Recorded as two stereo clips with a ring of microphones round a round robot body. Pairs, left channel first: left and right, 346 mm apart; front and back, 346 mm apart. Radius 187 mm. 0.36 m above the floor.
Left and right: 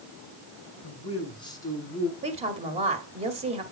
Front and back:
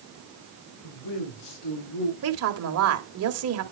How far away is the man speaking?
About 4 m.